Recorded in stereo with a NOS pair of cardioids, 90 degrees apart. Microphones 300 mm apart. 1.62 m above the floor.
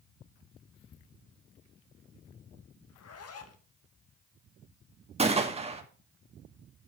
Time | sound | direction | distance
2.9 | a zipper | 55° left | 2.0 m
5.2 | a gunshot | 20° right | 2 m